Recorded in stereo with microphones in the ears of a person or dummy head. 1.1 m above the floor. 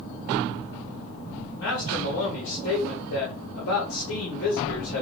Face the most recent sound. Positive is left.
turn(degrees=65)  # may be behind; listen again after turning